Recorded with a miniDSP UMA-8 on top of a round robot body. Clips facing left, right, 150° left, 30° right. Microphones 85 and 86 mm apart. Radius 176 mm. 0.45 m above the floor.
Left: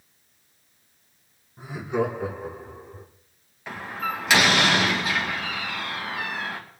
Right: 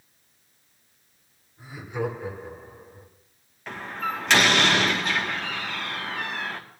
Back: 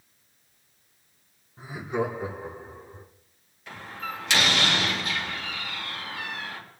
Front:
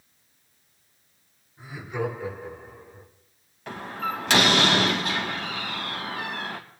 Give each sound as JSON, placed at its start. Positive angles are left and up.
{"t": 1.6, "sound": "laughter", "azimuth_deg": 105, "distance_m": 6.0}
{"t": 3.7, "sound": "a door slam", "azimuth_deg": 5, "distance_m": 3.0}